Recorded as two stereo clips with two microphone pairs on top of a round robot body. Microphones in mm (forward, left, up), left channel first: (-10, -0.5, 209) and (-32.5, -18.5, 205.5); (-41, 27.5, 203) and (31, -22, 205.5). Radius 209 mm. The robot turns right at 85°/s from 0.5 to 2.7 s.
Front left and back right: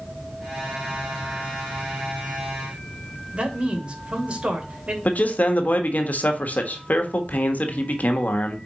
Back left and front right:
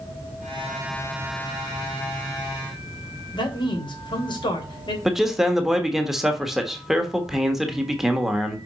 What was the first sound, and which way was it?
A man speaking, 175° left.